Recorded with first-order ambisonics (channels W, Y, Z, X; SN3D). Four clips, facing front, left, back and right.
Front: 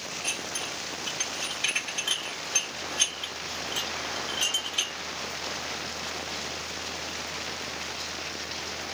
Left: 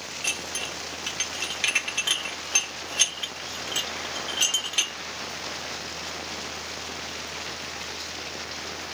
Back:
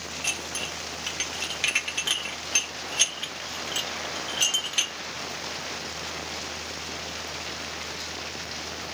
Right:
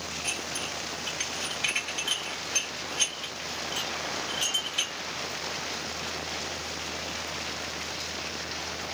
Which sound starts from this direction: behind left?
Dishes clattering, at 0.2 s.